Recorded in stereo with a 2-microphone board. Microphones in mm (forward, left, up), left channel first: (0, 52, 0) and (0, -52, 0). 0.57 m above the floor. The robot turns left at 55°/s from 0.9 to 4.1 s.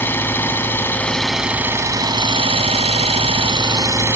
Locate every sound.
0.0 s an engine running: 20° left, 1.3 m; by 4.2 s 155° right, 1.3 m